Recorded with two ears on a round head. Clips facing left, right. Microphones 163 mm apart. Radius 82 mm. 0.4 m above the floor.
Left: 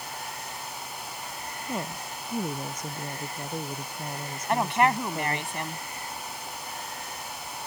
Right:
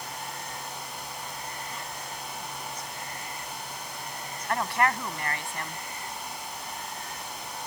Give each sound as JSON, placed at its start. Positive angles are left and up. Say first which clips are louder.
{"t": 1.6, "sound": "a woman speaking", "louder": "left 6 dB", "side_deg": 40}
{"t": 4.5, "sound": "a woman speaking", "louder": "left 3 dB", "side_deg": 20}